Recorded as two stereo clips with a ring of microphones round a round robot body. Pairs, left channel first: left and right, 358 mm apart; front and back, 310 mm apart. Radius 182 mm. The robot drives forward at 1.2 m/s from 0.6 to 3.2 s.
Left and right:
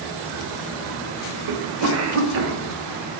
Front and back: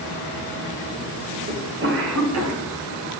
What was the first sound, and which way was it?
A cough, 115° right.